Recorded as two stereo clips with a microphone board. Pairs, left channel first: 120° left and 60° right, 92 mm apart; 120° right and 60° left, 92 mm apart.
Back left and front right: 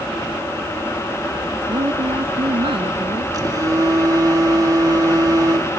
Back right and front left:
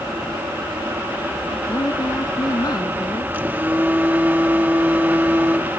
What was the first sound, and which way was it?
A woman speaking, 75° right.